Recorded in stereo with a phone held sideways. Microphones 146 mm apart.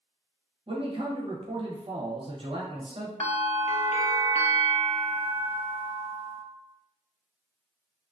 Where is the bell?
50° left (ahead or behind), 0.6 m.